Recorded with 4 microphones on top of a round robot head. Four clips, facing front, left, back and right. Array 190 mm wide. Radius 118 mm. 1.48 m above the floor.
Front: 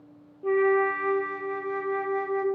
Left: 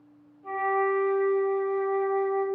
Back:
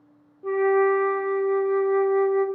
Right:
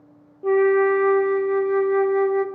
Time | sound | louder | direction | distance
0.4 | a flute | right 9 dB, back 2 dB | 85° right | 0.8 m